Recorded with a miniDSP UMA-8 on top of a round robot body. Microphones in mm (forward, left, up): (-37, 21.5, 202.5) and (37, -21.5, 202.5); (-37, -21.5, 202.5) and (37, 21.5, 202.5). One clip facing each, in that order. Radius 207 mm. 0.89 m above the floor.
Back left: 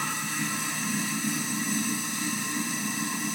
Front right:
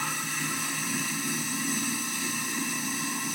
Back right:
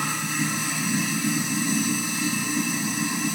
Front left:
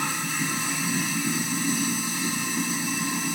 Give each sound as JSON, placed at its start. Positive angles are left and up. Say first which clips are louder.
{"t": 0.0, "sound": "running water", "louder": "back left 1 dB, back right 2 dB", "azimuth_deg": -145, "distance_m": 0.9}